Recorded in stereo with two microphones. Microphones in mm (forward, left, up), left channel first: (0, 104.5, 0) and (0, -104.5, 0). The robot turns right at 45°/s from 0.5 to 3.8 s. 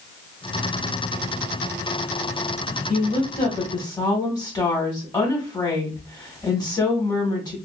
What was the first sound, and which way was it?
A woman speaking, 110° left.